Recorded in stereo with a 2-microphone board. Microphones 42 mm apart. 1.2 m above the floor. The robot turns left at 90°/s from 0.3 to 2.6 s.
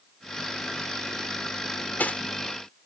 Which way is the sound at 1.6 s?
75° left (ahead or behind).